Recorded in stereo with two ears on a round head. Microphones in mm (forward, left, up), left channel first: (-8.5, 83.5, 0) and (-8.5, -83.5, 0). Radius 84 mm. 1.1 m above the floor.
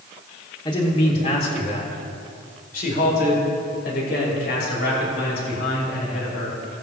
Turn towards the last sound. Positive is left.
turn(degrees=65)  # may be behind; listen again after turning